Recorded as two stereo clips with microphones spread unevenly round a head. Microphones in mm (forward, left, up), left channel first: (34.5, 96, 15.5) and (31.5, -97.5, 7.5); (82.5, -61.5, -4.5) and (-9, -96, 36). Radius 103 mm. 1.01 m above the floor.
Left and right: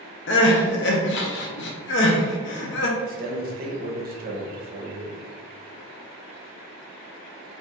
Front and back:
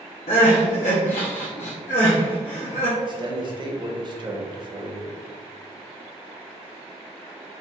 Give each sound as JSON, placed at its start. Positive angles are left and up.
{"t": 0.3, "sound": "crying", "azimuth_deg": 70, "distance_m": 0.6}
{"t": 3.0, "sound": "a man speaking", "azimuth_deg": -110, "distance_m": 0.8}